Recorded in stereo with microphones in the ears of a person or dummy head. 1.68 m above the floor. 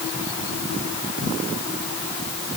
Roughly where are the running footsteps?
I don't hear running footsteps.